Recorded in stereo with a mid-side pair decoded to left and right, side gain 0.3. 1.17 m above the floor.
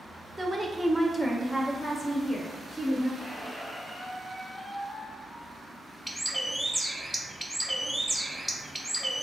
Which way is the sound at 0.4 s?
15° right.